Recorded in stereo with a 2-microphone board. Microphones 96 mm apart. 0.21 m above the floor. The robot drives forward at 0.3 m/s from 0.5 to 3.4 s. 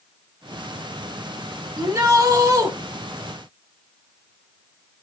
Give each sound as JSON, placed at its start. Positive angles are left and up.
{"t": 1.8, "sound": "a shout", "side_deg": -40, "distance_m": 2.0}